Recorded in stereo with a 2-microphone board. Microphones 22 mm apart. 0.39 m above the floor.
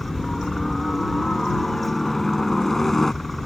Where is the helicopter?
20° left (ahead or behind); by 3.5 s 15° left (ahead or behind).